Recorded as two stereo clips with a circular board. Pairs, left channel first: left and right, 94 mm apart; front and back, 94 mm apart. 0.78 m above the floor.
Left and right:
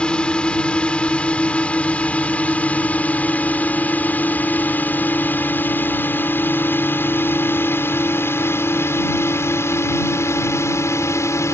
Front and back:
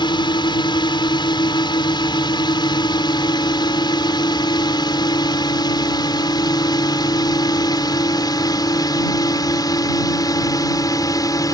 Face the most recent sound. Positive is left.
turn(degrees=40)